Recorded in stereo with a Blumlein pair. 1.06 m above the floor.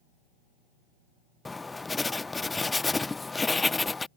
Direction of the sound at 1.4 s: 10° left.